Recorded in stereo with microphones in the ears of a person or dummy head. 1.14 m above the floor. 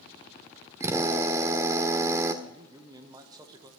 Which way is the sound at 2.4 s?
20° right (ahead or behind).